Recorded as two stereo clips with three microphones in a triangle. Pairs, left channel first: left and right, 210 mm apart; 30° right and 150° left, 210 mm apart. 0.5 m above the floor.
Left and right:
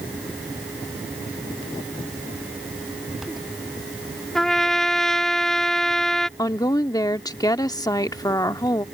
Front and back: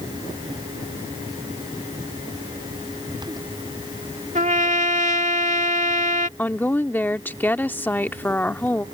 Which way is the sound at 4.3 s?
175° left.